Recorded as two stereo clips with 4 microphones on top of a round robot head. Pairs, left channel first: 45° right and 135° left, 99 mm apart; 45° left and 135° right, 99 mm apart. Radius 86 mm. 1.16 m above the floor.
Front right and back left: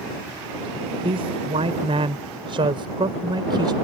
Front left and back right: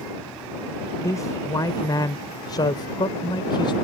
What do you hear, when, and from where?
1.0 s a man speaking: 105° left; by 3.7 s 90° left